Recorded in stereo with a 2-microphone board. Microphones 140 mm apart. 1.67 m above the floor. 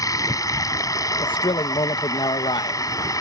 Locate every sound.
0.0 s running water: 25° left (ahead or behind)
1.2 s a man speaking: 35° left (ahead or behind)